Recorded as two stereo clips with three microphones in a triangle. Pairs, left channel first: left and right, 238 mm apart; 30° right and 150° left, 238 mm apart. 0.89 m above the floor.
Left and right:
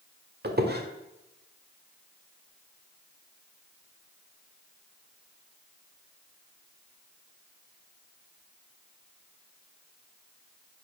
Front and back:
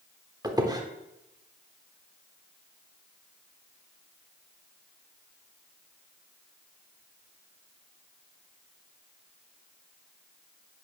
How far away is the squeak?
About 1.3 m.